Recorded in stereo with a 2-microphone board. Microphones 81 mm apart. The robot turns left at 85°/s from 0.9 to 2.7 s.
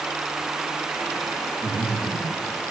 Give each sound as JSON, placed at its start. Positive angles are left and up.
{"t": 1.6, "sound": "breathing", "side_deg": -10, "distance_m": 9.5}